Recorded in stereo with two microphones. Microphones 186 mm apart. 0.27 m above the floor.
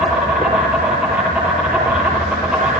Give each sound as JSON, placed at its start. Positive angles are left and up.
{"t": 0.0, "sound": "an insect", "side_deg": -5, "distance_m": 8.5}